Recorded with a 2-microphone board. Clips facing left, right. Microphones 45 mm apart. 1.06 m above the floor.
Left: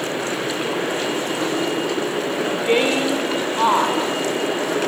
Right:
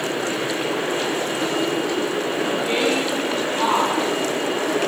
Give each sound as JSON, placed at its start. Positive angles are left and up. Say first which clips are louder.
{"t": 2.4, "sound": "a woman speaking", "louder": "left 4 dB", "side_deg": 35, "distance_m": 4.0}